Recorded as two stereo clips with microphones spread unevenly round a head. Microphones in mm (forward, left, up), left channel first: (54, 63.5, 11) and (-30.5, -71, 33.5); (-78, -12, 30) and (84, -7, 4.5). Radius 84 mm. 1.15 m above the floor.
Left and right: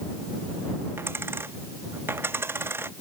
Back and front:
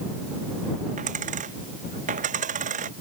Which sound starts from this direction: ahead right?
A dropped coin, at 1.0 s.